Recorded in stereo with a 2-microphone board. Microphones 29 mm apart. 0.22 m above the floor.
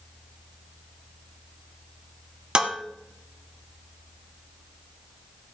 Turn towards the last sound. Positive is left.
turn(degrees=-35)  # may be behind; listen again after turning